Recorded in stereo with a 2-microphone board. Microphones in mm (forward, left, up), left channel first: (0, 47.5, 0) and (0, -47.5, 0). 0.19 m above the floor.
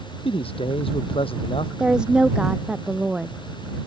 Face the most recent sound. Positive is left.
turn(degrees=-10)  # may be behind; listen again after turning